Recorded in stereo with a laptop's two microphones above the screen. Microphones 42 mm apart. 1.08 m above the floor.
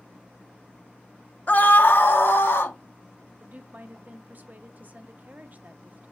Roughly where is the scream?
Left.